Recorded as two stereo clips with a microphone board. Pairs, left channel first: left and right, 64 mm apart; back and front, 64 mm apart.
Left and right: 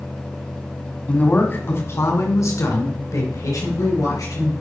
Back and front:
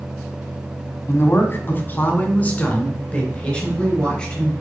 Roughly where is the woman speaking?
Behind left.